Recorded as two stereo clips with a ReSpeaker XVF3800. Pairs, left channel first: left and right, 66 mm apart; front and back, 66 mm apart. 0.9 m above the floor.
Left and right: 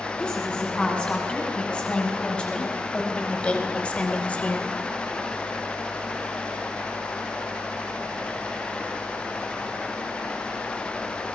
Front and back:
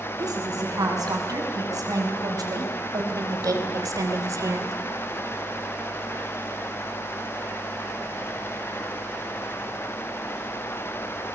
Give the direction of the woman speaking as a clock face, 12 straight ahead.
6 o'clock.